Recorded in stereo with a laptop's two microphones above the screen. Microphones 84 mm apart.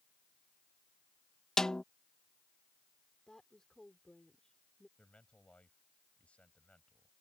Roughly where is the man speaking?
Centre.